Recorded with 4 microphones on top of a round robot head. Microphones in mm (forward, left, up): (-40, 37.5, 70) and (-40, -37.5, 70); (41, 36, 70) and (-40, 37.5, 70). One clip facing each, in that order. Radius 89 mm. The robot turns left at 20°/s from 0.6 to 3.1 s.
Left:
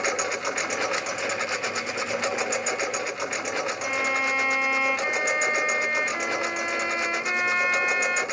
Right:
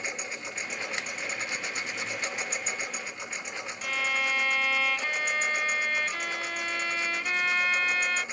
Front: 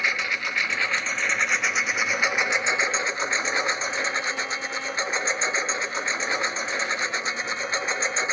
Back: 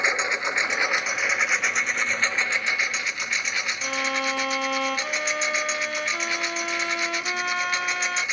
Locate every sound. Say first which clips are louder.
0.0 s a lawn mower: left 10 dB, back 2 dB; 110° left; by 8.3 s 60° left
3.8 s a violin: even, back 1 dB; 160° left